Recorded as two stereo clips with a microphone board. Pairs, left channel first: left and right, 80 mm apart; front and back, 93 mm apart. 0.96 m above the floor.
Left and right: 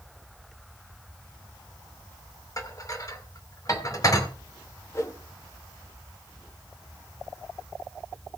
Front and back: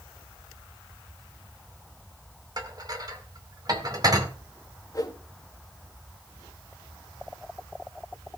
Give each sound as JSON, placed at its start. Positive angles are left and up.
{"t": 2.6, "sound": "dishes clattering", "azimuth_deg": 135, "distance_m": 2.0}
{"t": 4.9, "sound": "a whoosh", "azimuth_deg": 45, "distance_m": 1.9}